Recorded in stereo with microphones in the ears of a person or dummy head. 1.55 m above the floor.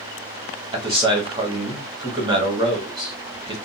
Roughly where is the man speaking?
Right.